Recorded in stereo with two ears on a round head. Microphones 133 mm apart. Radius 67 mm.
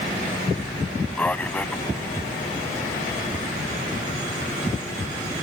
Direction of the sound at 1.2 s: 10° left (ahead or behind).